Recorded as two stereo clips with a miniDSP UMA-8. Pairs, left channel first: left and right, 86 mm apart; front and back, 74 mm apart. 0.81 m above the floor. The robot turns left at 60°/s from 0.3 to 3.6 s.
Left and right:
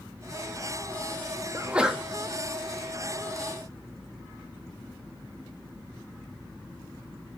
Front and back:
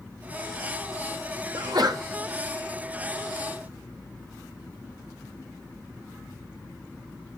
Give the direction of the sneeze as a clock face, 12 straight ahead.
5 o'clock.